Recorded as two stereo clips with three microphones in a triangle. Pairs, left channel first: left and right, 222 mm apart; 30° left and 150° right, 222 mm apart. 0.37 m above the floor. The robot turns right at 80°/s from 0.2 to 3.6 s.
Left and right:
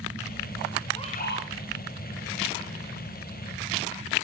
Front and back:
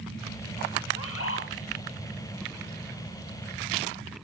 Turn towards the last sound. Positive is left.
turn(degrees=-125)